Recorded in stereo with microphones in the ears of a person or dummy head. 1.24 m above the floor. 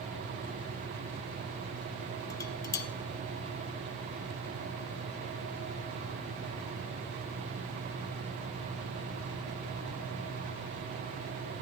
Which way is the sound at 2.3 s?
20° left (ahead or behind).